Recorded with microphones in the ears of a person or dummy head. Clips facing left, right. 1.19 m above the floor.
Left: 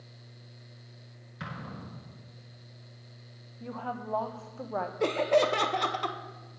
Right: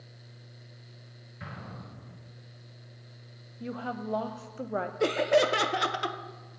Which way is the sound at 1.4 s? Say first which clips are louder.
Left 2 dB; 80° left.